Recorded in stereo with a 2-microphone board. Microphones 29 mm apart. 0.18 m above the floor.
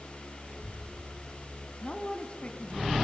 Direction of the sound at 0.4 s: 60° right (ahead or behind).